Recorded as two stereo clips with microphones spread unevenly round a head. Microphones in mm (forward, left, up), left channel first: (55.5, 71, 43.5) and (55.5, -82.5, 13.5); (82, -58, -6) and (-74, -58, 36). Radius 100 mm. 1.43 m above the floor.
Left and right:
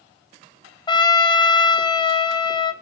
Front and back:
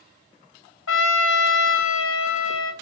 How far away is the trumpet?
About 0.8 m.